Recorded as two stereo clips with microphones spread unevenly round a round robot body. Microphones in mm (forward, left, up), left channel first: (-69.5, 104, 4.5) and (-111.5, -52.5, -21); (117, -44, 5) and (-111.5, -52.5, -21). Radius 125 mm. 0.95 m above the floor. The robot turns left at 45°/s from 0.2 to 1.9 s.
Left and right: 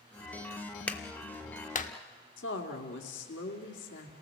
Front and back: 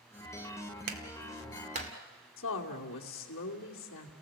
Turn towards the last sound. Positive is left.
turn(degrees=45)